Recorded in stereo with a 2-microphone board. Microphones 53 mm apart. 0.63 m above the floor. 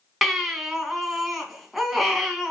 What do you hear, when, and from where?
0.2 s a baby crying: 5° right (ahead or behind), 2.5 m